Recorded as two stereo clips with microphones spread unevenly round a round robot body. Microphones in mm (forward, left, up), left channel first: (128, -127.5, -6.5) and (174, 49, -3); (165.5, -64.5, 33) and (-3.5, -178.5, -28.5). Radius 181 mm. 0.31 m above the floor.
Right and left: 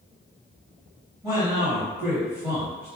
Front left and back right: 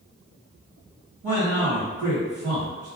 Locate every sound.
1.2 s a man speaking: 160° left, 1.7 m